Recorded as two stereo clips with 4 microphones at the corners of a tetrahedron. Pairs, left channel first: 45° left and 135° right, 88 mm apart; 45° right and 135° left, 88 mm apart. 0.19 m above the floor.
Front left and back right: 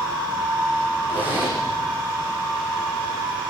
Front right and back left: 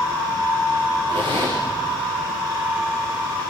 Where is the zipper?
155° left, 8.5 m.